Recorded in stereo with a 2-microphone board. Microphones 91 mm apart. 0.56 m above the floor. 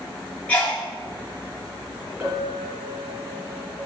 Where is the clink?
20° right (ahead or behind), 3 m.